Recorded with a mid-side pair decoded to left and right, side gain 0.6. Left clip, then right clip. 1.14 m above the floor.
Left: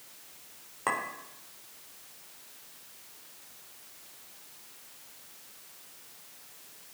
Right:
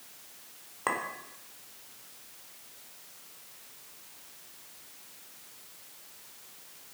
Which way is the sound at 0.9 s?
5° right.